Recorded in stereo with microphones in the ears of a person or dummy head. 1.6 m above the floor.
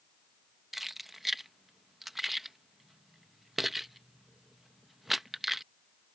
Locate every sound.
0.7 s keys jangling: centre (ahead or behind)